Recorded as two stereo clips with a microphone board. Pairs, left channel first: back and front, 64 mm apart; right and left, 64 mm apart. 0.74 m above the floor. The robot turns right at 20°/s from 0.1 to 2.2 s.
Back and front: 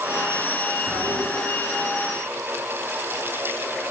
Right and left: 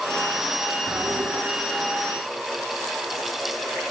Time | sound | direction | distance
0.9 | a toilet flushing | 45° left | 4 m